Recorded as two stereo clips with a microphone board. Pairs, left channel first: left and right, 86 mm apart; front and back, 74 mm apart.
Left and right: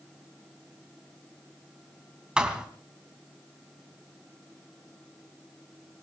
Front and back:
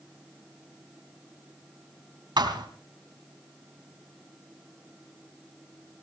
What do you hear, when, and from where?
2.4 s a thud: 170° right, 2 m